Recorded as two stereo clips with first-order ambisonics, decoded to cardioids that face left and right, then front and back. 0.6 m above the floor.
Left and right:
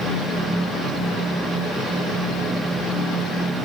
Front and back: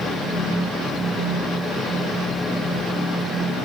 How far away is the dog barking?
I don't hear a dog barking.